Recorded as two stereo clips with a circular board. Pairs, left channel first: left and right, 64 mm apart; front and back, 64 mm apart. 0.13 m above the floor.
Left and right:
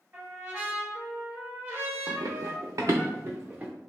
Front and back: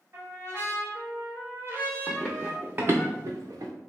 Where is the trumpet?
145° right, 1.1 m.